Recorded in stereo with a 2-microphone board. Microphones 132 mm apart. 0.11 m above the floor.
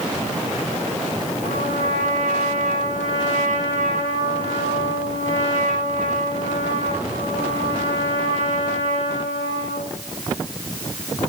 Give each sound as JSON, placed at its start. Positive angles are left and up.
{"t": 1.4, "sound": "a trumpet", "side_deg": -60, "distance_m": 9.0}